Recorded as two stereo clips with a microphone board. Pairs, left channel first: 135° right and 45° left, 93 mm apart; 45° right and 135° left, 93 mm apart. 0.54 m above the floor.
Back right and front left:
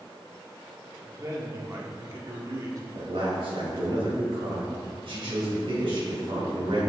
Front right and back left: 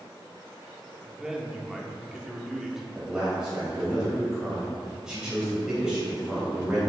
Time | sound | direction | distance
1.1 | a man speaking | 55° left | 1.3 m
2.9 | a man speaking | 55° left | 3 m